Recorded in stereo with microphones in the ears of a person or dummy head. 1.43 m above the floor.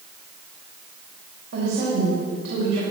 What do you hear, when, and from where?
1.5 s a woman speaking: 75° right (ahead or behind), 5.5 m